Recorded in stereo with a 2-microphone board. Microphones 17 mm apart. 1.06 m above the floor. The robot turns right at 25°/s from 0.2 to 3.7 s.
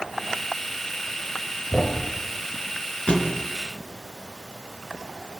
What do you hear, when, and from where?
1.7 s a thud: 70° left (ahead or behind), 2.5 m; by 2.1 s 75° left (ahead or behind), 2.5 m
3.1 s a thud: 65° left (ahead or behind), 3 m; by 3.4 s 70° left (ahead or behind), 3 m